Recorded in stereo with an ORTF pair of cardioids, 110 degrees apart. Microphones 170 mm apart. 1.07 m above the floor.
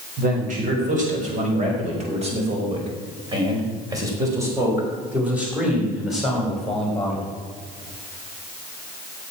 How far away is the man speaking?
About 6 m.